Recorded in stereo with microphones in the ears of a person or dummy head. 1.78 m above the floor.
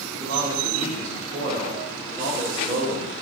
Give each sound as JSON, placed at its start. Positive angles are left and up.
{"t": 0.1, "sound": "a man speaking", "side_deg": -50, "distance_m": 4.0}